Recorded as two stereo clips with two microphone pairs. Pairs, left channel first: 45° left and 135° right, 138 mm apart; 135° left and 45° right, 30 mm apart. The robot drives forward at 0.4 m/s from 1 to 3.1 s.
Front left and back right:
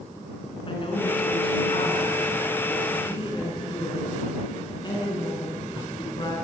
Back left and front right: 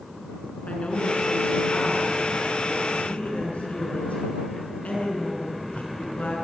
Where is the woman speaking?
90° left, 8 m; by 6.4 s 95° left, 8 m.